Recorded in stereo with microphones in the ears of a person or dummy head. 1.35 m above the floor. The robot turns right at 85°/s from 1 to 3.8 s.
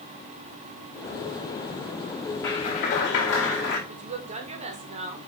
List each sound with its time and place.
2.4 s a clap: 20° left, 4 m; by 3.8 s 140° left, 4 m
3.9 s a woman speaking: 35° right (ahead or behind), 1.7 m